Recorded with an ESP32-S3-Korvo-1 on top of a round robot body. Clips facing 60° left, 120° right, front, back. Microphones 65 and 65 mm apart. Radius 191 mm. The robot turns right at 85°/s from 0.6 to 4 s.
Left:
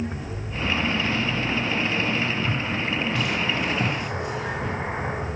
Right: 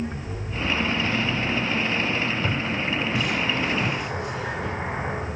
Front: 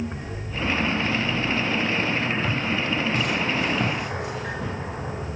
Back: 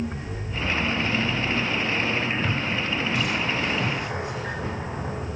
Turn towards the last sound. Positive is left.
turn(degrees=-15)